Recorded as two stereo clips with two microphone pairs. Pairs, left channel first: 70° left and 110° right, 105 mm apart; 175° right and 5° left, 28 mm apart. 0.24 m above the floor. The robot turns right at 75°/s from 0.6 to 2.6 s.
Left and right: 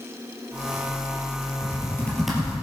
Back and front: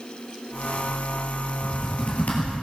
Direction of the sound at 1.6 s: 115° left.